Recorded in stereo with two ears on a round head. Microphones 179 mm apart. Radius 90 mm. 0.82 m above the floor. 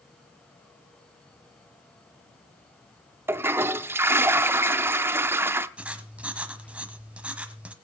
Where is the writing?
5° right (ahead or behind), 1.2 m.